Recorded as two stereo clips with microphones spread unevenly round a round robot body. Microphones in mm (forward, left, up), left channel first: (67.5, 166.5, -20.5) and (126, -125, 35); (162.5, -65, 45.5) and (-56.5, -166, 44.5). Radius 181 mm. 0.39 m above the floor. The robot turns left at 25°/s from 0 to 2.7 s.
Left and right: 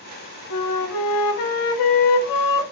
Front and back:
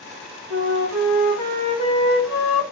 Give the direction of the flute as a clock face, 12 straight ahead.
8 o'clock.